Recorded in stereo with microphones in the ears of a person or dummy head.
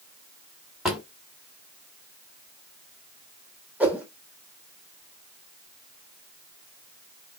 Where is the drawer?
5° right (ahead or behind), 1.0 m.